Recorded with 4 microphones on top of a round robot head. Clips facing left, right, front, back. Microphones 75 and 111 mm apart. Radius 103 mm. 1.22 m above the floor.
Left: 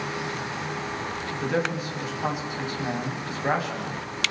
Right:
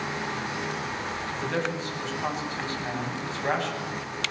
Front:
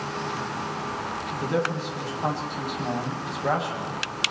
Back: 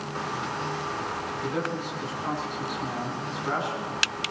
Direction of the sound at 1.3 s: 10° left.